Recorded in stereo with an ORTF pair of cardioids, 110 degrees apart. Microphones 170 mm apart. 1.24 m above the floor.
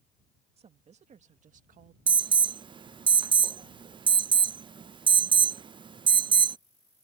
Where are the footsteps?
I don't hear footsteps.